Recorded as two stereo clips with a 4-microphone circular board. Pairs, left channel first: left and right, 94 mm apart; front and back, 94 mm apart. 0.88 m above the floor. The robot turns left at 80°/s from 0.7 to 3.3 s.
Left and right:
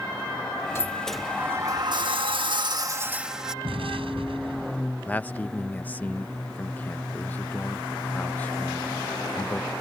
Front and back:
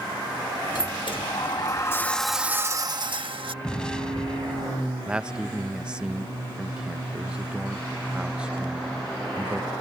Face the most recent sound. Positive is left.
turn(degrees=115)